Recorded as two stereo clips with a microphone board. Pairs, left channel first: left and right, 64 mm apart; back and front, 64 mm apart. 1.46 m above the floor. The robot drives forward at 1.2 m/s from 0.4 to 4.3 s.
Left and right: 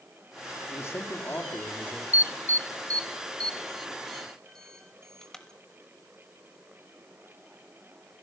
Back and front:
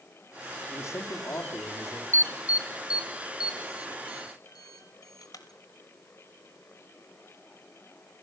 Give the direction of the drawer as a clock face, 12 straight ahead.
I don't hear a drawer.